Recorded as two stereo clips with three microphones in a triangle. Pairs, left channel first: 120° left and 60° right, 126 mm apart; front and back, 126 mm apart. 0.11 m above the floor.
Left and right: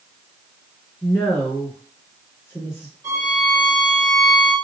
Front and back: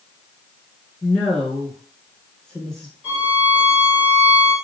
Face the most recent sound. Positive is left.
turn(degrees=-105)